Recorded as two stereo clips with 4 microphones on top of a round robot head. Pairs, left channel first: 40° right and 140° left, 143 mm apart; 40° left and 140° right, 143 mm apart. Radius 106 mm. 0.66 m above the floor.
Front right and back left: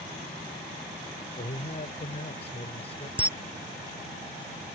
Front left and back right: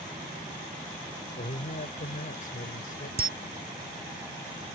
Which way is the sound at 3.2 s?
140° right.